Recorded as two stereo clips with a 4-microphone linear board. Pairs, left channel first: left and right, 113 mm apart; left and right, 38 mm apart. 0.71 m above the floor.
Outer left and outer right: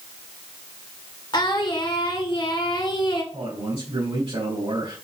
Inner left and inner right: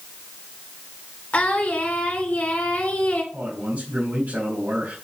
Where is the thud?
No thud in this recording.